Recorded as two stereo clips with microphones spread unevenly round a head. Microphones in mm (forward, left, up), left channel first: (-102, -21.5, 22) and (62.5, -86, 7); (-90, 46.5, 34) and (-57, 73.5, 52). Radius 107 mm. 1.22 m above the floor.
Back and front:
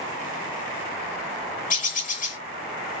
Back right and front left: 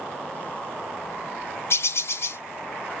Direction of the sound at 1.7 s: 155° right.